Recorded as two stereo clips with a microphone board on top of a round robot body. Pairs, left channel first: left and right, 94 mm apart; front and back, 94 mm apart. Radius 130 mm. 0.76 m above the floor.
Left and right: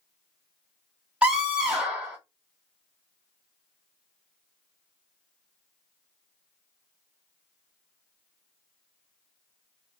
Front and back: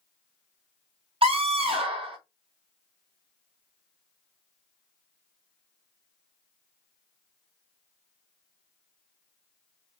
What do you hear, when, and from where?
1.2 s a scream: 170° right, 2 m